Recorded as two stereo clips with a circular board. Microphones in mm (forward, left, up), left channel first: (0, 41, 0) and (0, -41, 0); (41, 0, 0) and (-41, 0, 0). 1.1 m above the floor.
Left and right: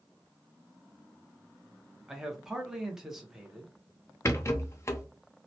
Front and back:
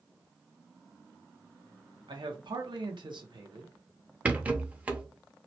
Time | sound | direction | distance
2.1 | a man speaking | 175° right | 0.9 m
4.2 | a rattle | 120° left | 0.5 m